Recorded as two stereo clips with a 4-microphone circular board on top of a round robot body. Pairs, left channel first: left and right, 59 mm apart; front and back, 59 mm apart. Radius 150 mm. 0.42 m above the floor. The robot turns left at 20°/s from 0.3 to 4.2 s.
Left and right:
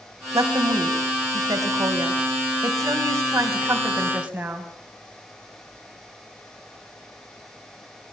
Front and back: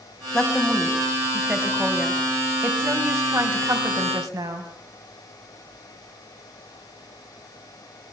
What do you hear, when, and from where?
0.3 s a woman speaking: 80° right, 3.5 m; by 4.7 s 160° right, 3.5 m